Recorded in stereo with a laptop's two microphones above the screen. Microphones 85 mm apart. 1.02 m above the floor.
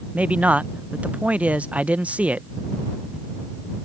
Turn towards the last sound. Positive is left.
turn(degrees=-15)  # may be behind; listen again after turning